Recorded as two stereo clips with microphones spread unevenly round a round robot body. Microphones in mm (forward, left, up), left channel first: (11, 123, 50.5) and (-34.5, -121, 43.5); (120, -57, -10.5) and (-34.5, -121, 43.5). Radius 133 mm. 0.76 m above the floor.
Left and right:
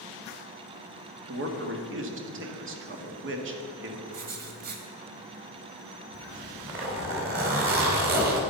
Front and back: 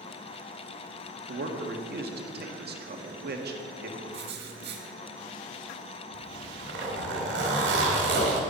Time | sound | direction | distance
1.3 | a man speaking | 130° right | 1.6 m
4.1 | writing | 155° right | 1.5 m
6.1 | a zipper | 155° right | 2.5 m